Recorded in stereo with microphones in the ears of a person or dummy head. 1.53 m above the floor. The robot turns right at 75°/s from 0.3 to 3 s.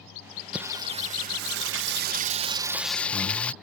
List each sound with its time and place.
0.5 s singing: 175° right; by 3.5 s 10° left